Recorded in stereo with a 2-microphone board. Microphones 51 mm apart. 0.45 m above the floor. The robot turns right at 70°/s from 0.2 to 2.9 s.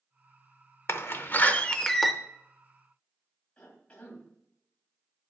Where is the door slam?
95° left, 0.6 m; by 2.1 s straight behind, 0.6 m.